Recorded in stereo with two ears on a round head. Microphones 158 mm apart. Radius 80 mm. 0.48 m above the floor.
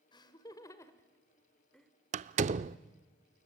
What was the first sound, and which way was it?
Laughter, 25° left (ahead or behind).